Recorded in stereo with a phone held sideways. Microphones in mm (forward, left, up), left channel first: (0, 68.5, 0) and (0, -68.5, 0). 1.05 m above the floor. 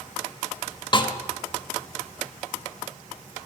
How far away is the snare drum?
About 1.0 m.